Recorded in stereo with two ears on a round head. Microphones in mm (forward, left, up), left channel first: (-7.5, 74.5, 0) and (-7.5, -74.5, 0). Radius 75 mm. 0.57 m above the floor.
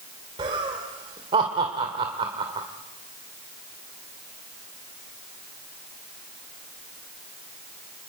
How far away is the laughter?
About 1.9 m.